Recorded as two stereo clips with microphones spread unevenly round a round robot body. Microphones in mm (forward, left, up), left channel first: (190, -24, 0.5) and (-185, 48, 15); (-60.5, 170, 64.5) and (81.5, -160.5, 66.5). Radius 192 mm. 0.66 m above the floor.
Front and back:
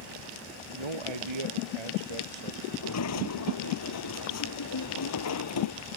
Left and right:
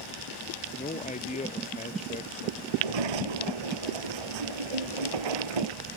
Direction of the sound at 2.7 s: 60° right.